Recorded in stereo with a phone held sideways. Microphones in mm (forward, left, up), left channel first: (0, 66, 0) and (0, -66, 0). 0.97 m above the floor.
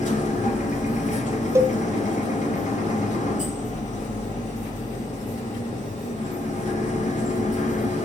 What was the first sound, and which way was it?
A machine running, 70° left (ahead or behind).